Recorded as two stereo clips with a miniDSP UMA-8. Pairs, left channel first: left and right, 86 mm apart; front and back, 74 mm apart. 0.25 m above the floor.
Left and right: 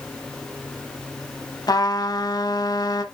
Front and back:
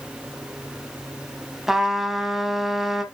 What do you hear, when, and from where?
1.7 s a trumpet: 100° left, 1.1 m